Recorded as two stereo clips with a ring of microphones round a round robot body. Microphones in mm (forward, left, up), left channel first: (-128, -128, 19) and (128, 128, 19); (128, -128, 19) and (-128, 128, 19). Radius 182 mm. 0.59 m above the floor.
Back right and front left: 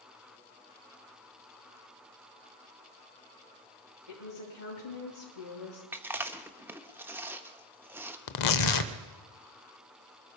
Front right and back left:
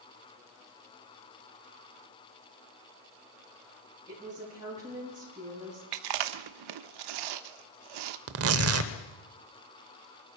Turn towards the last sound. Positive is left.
turn(degrees=-170)